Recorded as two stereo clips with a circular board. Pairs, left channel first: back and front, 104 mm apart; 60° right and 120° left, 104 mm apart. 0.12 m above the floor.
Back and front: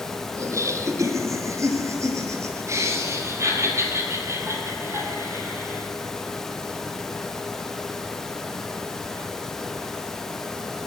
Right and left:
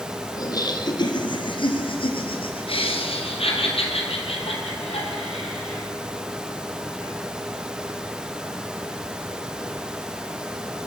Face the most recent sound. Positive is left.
turn(degrees=-65)